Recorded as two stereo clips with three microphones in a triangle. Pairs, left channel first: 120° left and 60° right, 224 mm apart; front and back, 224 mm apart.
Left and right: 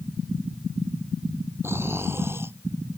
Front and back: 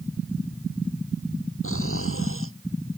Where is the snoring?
20° left.